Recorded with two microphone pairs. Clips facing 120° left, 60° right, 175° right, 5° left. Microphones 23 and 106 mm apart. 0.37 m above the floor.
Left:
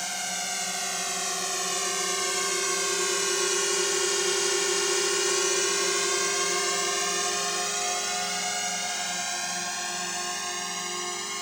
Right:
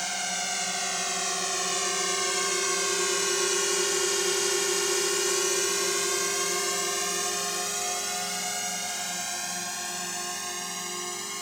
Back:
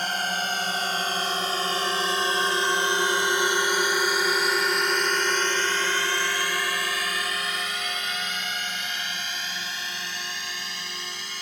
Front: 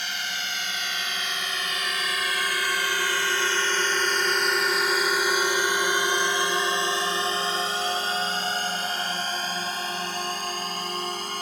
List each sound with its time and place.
0.0 s a drone: 145° right; by 11.4 s 45° left